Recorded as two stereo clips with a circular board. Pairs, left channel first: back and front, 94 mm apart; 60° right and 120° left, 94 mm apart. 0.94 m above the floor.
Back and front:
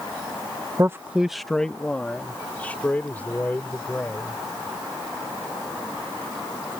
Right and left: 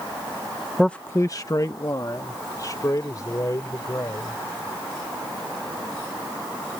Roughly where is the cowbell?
No cowbell in this recording.